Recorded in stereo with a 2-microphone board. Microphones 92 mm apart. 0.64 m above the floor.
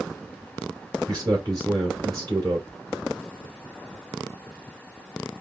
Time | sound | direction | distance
1.1 | a man speaking | 40° right (ahead or behind) | 2 m